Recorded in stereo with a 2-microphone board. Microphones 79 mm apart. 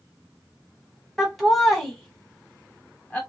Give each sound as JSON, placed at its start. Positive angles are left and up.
{"t": 1.2, "sound": "laughter", "side_deg": -5, "distance_m": 1.3}